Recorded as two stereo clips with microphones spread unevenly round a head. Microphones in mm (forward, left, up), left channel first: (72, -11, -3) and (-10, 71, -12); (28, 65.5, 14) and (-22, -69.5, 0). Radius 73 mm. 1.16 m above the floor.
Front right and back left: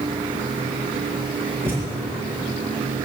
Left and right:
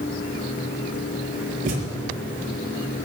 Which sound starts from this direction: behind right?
A thud, at 1.6 s.